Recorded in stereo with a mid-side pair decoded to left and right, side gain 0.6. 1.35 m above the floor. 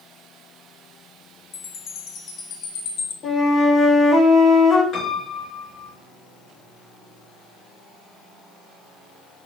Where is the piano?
45° left, 4.5 m.